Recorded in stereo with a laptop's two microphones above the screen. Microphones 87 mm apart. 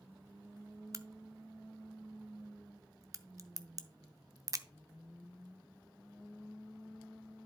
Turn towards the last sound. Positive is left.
turn(degrees=-40)  # may be behind; listen again after turning